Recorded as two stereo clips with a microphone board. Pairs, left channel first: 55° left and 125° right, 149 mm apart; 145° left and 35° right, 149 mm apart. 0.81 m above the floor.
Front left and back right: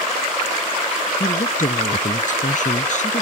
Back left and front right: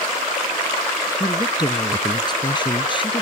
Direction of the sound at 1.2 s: 80° left.